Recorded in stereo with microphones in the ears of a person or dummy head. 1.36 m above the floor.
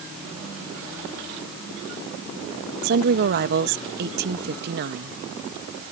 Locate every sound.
2.8 s a woman speaking: 55° right (ahead or behind)